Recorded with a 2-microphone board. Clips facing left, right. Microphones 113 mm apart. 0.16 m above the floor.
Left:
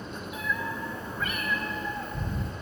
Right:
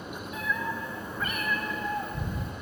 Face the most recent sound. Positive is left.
turn(degrees=-15)  # may be behind; listen again after turning